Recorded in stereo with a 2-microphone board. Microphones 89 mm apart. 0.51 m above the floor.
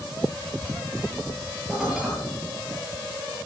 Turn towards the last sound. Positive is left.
turn(degrees=-5)  # may be behind; listen again after turning